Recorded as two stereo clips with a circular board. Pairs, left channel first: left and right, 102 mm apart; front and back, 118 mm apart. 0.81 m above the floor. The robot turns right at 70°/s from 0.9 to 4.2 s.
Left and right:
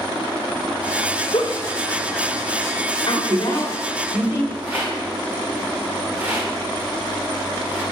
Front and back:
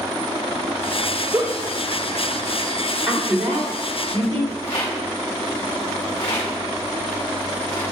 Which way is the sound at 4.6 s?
20° right.